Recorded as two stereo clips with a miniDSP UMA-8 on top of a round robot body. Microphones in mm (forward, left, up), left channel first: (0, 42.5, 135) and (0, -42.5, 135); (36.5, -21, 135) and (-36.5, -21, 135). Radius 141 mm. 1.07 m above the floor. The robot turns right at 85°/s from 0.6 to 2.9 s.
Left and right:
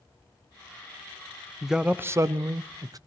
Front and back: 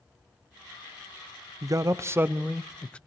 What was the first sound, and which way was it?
A man speaking, straight behind.